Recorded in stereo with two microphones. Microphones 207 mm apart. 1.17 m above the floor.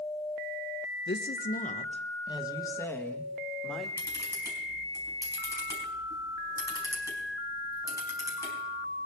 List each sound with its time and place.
1.1 s a woman speaking: 60° left (ahead or behind), 0.8 m; by 3.9 s centre (ahead or behind), 2.0 m
4.0 s a camera shutter: 15° left (ahead or behind), 4.5 m